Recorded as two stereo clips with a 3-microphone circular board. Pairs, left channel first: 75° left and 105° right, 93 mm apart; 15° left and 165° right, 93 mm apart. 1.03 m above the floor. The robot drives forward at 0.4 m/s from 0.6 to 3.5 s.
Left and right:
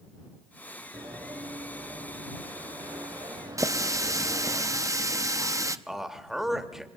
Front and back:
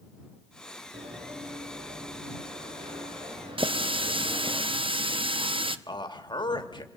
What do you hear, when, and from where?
0.9 s running footsteps: 155° right, 6 m; by 4.6 s 160° right, 12 m
3.6 s a running tap: 155° right, 0.7 m
5.9 s a man speaking: 20° right, 2.0 m